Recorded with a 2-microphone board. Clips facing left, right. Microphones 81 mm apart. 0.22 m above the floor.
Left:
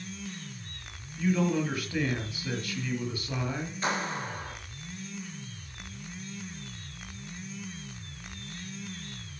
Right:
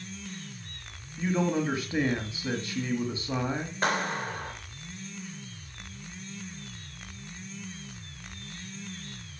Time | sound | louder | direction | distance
1.2 | a man speaking | even | 25° right (ahead or behind) | 1.5 m
3.8 | a clap | right 3 dB | 50° right (ahead or behind) | 3.5 m